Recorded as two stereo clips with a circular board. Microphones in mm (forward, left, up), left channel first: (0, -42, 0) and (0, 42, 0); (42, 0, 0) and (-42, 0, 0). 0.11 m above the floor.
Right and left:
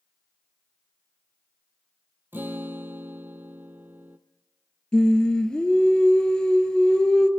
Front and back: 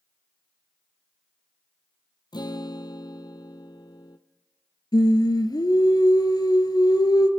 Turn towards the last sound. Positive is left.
turn(degrees=-10)